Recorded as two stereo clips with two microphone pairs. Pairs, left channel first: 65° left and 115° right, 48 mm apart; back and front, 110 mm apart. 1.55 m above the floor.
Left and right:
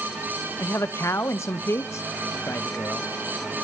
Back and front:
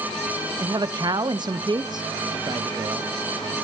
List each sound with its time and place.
0.6 s a man speaking: 50° left, 1.1 m